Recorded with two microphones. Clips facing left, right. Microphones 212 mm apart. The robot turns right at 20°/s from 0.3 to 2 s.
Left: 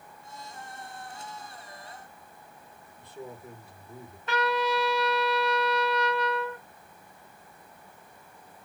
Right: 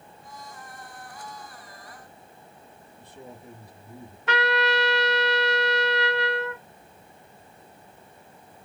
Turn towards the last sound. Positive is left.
turn(degrees=-75)  # may be behind; listen again after turning